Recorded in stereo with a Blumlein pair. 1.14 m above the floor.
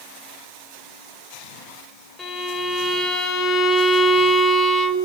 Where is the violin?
10° left, 4.5 m.